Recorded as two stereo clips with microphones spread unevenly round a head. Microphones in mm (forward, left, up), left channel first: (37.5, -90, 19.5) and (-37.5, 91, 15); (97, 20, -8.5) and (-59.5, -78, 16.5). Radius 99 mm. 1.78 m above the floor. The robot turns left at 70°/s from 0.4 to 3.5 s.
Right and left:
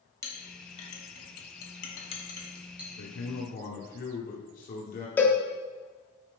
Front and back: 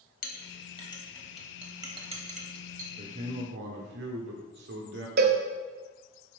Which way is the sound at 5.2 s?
145° right.